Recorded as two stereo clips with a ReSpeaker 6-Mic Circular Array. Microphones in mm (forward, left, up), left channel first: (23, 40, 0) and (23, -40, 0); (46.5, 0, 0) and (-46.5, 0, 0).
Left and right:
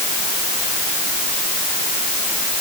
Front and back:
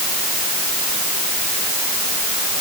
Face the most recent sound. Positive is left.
No sound to turn to.